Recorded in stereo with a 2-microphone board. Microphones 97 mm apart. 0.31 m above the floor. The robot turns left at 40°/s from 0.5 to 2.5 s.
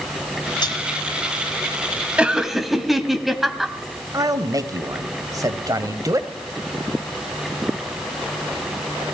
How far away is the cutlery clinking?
About 2.0 m.